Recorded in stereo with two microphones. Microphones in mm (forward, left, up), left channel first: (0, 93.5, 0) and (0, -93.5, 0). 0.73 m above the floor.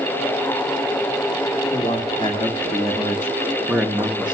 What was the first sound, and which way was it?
A man speaking, 30° left (ahead or behind).